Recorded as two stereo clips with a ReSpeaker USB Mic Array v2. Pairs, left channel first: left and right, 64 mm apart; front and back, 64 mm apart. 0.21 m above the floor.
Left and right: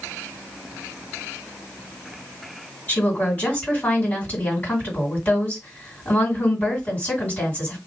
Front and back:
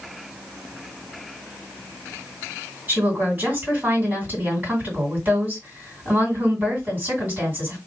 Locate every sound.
2.9 s a woman speaking: 140° left, 2 m